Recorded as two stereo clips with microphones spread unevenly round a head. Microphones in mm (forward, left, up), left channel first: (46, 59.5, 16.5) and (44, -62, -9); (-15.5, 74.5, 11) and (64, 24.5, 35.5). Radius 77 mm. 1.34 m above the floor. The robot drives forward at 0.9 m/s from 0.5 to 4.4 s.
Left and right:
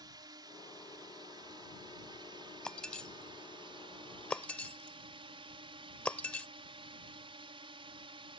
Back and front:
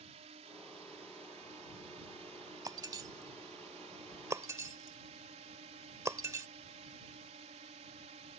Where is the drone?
35° right; by 8.4 s 50° right.